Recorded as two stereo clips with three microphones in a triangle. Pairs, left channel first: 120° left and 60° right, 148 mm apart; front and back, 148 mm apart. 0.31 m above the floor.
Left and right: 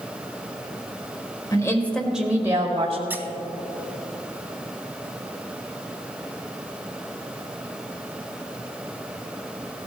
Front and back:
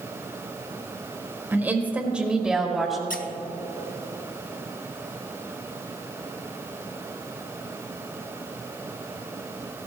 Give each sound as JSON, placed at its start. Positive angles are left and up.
{"t": 1.5, "sound": "a woman speaking", "azimuth_deg": 120, "distance_m": 1.3}
{"t": 3.1, "sound": "a squeak", "azimuth_deg": 15, "distance_m": 0.8}